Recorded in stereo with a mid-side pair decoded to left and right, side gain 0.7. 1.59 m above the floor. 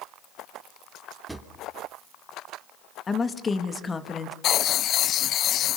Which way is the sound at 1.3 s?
10° right.